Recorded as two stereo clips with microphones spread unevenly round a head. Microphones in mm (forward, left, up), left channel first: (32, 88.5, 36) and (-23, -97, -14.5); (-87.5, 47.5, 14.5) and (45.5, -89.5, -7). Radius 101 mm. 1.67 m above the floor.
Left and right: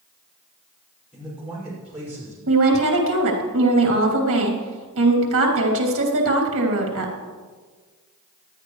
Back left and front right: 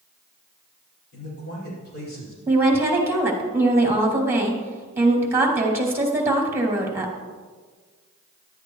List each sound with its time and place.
1.1 s a man speaking: 165° left, 5.5 m; by 2.4 s 175° left, 6.5 m
2.5 s a woman speaking: 125° right, 3 m